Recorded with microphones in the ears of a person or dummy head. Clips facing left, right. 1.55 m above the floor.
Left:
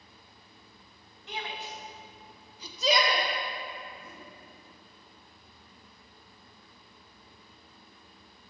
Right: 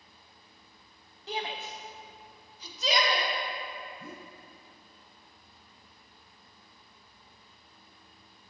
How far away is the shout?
About 0.9 m.